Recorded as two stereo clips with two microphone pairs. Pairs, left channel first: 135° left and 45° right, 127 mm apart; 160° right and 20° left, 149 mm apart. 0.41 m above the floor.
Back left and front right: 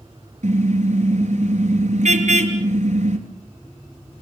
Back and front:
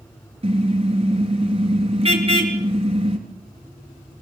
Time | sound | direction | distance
0.4 | a car horn | 25° right | 3.5 m